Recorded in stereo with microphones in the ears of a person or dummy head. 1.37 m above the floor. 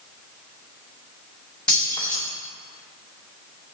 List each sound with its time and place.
1.7 s keys jangling: 10° left (ahead or behind), 2 m